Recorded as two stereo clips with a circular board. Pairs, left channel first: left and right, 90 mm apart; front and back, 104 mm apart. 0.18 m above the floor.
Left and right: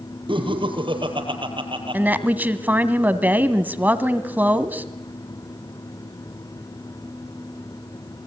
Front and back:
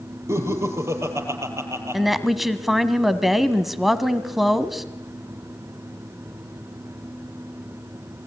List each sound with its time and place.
0.3 s laughter: 115° right, 5.5 m
1.9 s a woman speaking: 95° right, 1.5 m